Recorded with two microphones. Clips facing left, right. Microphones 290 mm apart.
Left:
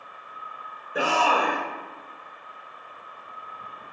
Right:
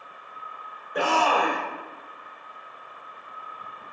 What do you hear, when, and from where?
0.9 s a shout: 5° left (ahead or behind), 0.9 m